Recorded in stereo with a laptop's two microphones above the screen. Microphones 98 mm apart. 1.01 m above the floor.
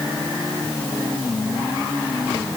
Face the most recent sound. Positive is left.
No sound to turn to.